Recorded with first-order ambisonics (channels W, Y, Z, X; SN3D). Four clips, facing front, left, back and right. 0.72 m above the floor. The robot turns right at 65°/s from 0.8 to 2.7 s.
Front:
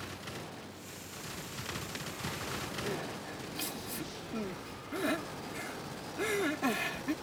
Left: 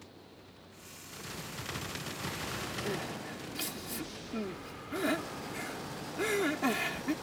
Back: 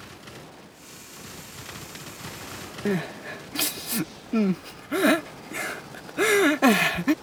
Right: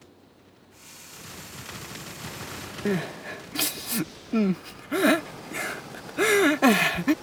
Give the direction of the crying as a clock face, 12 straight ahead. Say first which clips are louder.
Right 8 dB, back 10 dB; 5 o'clock.